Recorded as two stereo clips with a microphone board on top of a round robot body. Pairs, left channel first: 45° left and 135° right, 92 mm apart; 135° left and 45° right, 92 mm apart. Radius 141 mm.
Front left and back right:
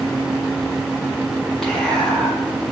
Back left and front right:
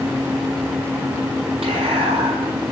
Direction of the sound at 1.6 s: 35° right.